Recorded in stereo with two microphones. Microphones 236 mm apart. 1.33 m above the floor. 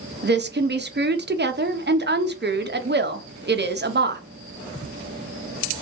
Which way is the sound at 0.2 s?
45° right (ahead or behind).